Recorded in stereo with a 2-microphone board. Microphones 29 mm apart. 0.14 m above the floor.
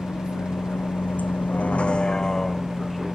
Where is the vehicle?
70° left (ahead or behind); by 3.2 s 5° right (ahead or behind).